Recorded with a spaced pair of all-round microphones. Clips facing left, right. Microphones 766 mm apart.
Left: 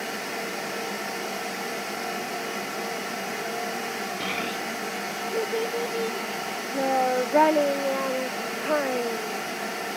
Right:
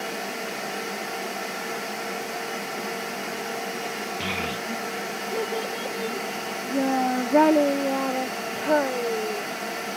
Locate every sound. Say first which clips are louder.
4.2 s a child speaking: right 1 dB; 30° right (ahead or behind); by 9.4 s 65° right (ahead or behind)